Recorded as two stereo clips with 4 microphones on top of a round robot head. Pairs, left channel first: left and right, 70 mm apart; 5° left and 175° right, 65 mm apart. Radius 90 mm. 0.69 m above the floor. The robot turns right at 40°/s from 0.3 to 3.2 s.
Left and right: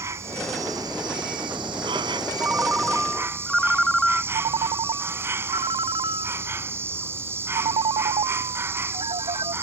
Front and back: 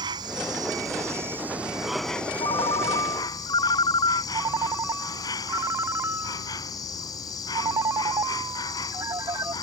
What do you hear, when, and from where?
0.0 s an insect: 150° right; by 9.6 s 35° right
2.4 s a ringtone: 30° right; by 4.2 s straight ahead
4.3 s a ringtone: 120° right